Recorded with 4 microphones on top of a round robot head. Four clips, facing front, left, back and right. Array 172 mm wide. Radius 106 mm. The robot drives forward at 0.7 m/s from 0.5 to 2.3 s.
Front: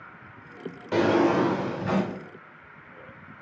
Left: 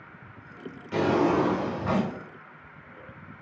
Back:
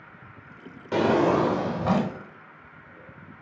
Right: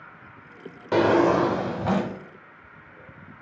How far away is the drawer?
About 0.6 m.